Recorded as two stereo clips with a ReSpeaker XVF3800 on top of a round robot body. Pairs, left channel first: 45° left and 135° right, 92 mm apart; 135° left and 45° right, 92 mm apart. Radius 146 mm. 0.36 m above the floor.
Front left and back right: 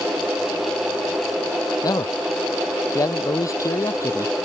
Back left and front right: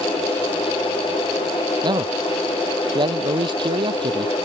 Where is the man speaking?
5° right; by 4.3 s 15° right.